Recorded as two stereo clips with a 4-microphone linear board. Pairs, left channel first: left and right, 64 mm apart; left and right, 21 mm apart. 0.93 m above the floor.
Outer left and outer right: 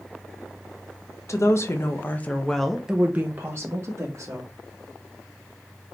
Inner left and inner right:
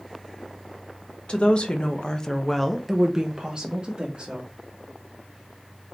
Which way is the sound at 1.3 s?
50° left (ahead or behind).